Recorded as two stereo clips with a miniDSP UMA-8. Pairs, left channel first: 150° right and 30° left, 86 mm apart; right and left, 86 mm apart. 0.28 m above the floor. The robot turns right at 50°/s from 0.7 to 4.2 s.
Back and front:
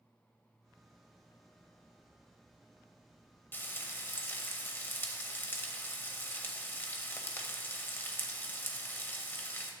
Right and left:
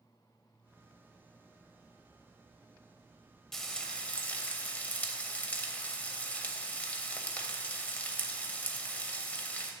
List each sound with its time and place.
3.5 s frying: 170° right, 0.8 m; by 9.7 s 135° right, 0.8 m